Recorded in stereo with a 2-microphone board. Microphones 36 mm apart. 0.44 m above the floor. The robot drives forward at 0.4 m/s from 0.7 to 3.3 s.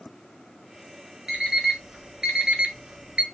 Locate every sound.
1.3 s an alarm clock: 15° right (ahead or behind), 1.2 m; by 3.2 s 35° right (ahead or behind), 0.5 m